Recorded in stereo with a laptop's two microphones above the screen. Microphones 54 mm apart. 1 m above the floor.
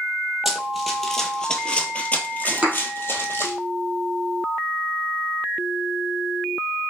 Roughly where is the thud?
Right.